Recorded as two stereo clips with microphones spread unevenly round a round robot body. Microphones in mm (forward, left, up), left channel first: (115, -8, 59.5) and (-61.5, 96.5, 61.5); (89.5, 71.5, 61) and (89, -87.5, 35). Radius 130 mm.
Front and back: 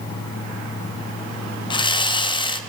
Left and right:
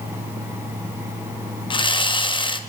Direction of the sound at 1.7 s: 30° left.